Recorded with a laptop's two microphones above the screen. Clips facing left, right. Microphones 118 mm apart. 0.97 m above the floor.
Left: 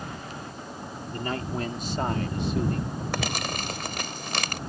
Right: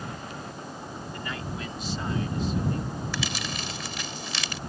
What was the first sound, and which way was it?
A man speaking, 40° left (ahead or behind).